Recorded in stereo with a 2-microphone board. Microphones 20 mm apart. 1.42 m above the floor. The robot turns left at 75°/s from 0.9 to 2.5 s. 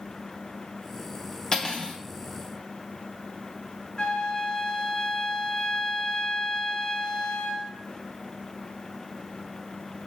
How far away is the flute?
About 0.5 m.